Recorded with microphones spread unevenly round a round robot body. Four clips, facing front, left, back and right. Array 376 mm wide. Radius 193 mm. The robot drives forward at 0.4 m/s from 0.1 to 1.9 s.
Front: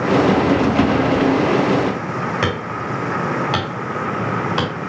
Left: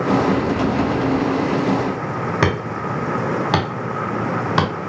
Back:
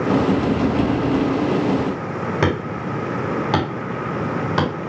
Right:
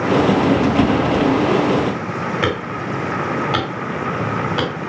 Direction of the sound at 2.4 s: 130° left.